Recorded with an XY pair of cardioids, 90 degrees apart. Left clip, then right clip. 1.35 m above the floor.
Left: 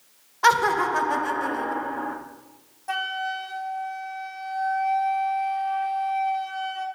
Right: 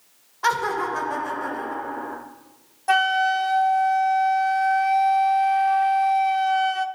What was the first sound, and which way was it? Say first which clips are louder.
Laughter: left 3 dB; 35° left.